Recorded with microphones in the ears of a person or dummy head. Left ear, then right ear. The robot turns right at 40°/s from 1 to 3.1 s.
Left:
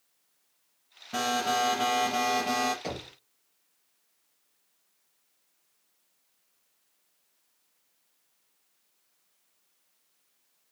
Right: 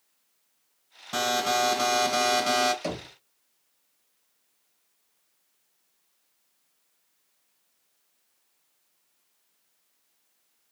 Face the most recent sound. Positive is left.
turn(degrees=-45)  # may be behind; listen again after turning